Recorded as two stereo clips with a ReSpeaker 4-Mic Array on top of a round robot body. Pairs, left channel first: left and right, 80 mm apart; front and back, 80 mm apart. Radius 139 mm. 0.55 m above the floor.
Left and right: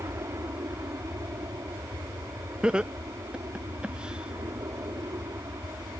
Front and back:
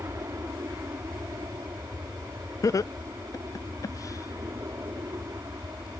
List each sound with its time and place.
0.0 s an aircraft: 135° right
2.6 s laughter: 15° right